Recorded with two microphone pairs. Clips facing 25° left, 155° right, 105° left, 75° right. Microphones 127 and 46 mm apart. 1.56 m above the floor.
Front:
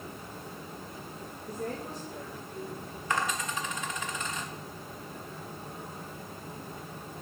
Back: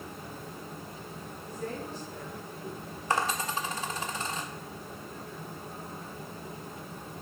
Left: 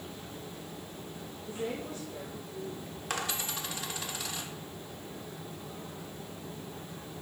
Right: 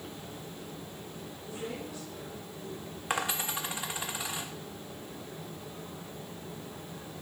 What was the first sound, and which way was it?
A woman speaking, 60° left.